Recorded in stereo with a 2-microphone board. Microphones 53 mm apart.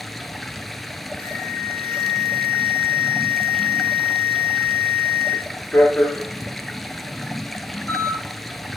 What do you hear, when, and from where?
0.0 s running water: centre (ahead or behind), 0.7 m
1.2 s an alarm: 30° left (ahead or behind), 5.5 m